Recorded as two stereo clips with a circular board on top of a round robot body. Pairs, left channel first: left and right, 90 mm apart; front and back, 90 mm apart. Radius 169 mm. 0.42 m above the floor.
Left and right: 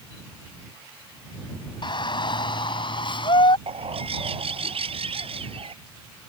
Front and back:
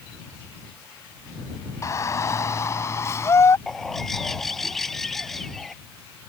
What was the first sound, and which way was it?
A shout, 55° left.